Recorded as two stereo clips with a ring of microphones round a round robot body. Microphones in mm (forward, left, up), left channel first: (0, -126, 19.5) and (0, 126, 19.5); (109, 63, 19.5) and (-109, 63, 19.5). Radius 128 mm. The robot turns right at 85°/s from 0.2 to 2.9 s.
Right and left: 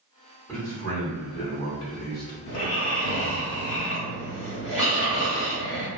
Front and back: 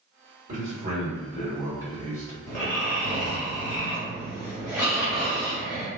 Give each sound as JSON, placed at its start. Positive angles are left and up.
{"t": 0.5, "sound": "a man speaking", "azimuth_deg": -175, "distance_m": 1.6}
{"t": 2.5, "sound": "snoring", "azimuth_deg": -70, "distance_m": 1.1}